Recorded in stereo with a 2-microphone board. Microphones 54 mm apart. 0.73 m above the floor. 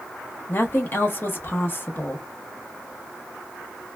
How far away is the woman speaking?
About 0.7 m.